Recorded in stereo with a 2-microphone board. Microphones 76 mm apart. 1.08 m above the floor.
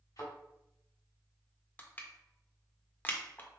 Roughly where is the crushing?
Left.